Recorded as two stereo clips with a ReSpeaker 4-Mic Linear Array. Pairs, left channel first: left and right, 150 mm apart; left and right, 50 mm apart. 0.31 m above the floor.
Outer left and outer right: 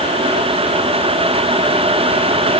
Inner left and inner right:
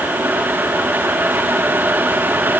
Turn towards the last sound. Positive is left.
No sound to turn to.